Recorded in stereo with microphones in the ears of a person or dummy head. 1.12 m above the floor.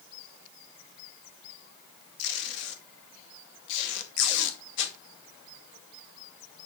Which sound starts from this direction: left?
Tape being pulled, at 2.2 s.